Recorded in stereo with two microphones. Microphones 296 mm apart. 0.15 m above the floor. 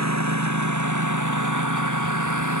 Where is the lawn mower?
65° right (ahead or behind); by 2.6 s 80° right.